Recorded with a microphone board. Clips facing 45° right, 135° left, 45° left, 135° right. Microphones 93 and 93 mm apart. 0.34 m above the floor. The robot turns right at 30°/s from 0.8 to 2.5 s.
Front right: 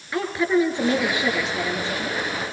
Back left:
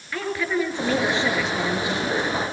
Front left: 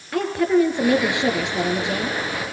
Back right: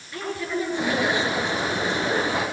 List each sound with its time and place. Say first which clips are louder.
0.1 s a woman speaking: front right 4 dB, front left 10 dB; 25° left, 5 m; by 2.2 s 65° left, 5 m